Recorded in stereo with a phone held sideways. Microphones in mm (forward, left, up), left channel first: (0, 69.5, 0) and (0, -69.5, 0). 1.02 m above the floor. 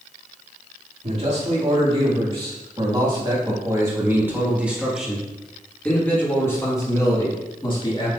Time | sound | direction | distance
1.0 | a man speaking | 45° right (ahead or behind) | 3 m